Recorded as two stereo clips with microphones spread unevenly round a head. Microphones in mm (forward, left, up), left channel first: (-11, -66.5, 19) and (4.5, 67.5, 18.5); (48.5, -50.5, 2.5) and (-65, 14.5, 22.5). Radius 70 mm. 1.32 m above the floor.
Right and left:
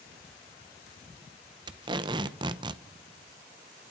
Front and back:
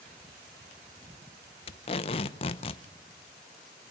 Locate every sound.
1.7 s tape being pulled: 25° left, 0.8 m